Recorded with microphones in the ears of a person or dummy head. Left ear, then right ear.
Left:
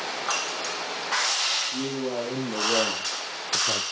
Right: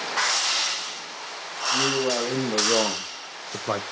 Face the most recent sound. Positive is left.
turn(degrees=-45)  # may be behind; listen again after turning